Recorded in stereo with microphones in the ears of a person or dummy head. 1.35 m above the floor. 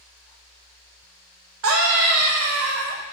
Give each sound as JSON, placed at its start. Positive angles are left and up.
{"t": 1.6, "sound": "a scream", "side_deg": -85, "distance_m": 0.6}